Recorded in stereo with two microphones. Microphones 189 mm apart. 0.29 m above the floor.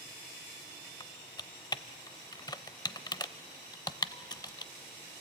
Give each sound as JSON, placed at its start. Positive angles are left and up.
{"t": 1.0, "sound": "typing on a keyboard", "side_deg": 20, "distance_m": 0.6}